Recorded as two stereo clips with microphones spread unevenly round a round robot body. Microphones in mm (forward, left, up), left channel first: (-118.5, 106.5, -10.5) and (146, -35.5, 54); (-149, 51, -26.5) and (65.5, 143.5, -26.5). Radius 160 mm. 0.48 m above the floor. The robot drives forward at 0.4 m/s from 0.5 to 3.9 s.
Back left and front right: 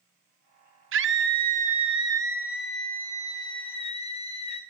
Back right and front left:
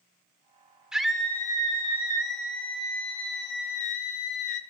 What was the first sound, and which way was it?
A scream, 60° right.